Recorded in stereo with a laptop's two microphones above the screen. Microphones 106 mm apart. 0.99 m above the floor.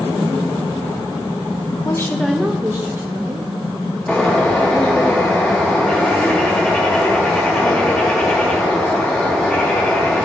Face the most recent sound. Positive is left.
turn(degrees=10)  # may be behind; listen again after turning